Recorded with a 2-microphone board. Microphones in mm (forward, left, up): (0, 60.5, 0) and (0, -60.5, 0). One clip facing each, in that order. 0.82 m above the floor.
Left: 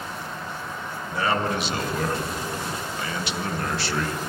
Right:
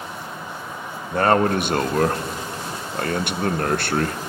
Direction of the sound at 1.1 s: 55° right (ahead or behind).